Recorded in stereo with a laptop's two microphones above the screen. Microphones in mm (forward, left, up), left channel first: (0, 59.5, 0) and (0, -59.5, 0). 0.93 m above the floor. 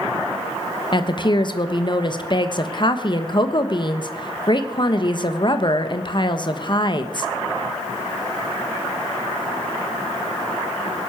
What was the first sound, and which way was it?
A woman speaking, 40° left (ahead or behind).